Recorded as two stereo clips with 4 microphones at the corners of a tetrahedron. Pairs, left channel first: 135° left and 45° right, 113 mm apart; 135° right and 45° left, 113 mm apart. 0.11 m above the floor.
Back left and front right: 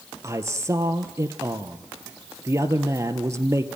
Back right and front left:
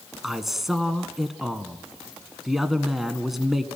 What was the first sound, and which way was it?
A man speaking, 40° right.